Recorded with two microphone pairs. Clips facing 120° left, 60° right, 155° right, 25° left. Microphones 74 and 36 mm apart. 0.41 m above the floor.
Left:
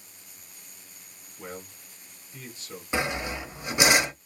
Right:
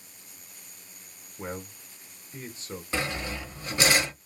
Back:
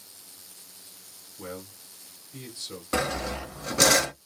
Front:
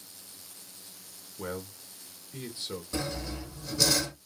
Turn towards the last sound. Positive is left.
turn(degrees=-165)